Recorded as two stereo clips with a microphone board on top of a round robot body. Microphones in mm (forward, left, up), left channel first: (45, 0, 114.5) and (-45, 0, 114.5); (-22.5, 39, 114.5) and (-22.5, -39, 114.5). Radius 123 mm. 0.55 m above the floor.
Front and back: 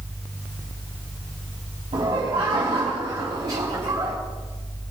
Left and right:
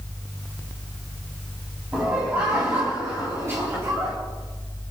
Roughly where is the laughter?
Behind.